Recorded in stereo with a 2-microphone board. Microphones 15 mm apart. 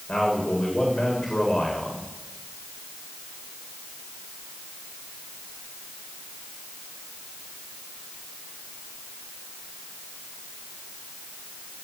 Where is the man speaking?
60° left (ahead or behind), 9 m.